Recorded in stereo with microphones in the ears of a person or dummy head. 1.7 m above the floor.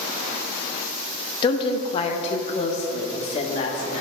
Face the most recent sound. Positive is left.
turn(degrees=35)  # may be behind; listen again after turning